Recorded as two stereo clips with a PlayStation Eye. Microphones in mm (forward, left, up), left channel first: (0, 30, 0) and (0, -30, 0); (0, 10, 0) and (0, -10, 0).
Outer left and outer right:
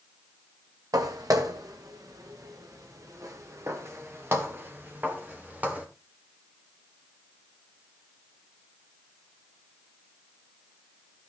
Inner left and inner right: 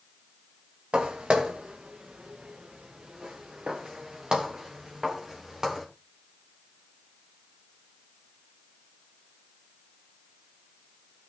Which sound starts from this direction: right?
Footsteps, at 0.9 s.